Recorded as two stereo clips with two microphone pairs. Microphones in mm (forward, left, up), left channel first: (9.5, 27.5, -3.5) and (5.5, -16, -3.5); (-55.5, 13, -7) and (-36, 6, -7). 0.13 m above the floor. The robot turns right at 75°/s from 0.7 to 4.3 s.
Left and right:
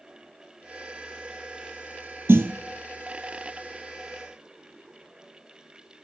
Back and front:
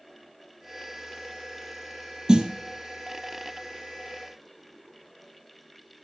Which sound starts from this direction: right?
A snare drum, at 2.3 s.